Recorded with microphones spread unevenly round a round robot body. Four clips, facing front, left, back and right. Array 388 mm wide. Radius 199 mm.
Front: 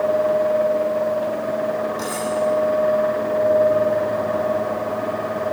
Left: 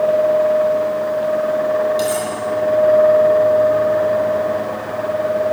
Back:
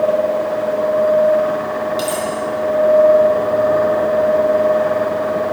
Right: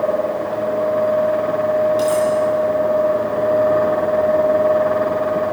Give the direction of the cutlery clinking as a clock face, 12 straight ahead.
6 o'clock.